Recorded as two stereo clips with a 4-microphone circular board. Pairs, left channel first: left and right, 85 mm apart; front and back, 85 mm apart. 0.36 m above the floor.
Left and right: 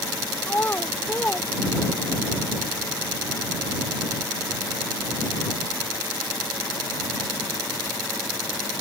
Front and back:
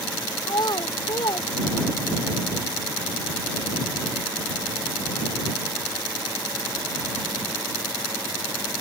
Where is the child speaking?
25° left; by 2.2 s 15° left.